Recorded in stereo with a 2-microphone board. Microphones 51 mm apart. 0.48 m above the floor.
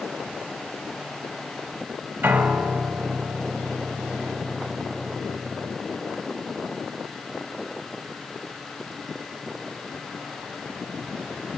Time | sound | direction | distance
2.2 | a piano | 40° right (ahead or behind) | 0.8 m